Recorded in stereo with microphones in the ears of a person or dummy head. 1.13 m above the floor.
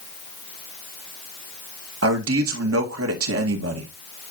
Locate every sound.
2.0 s a man speaking: 70° right (ahead or behind), 1.6 m